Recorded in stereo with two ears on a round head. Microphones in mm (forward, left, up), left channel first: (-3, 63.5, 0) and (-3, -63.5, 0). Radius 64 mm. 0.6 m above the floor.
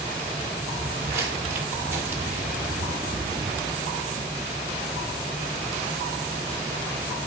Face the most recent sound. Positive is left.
turn(degrees=-10)  # may be behind; listen again after turning